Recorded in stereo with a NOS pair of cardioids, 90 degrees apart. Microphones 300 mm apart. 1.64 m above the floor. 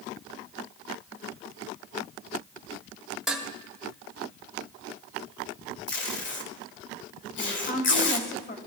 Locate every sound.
3.3 s dishes clattering: straight ahead, 2.5 m
5.9 s tape being pulled: 40° left, 1.9 m
7.4 s a woman speaking: 40° left, 4 m